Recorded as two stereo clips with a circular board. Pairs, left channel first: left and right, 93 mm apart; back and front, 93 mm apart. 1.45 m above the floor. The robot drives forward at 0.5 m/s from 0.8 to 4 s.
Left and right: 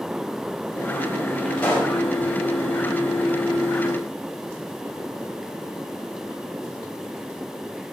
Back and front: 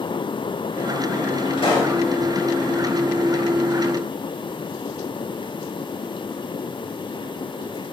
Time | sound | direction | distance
1.6 | a pop | 165° left | 4.5 m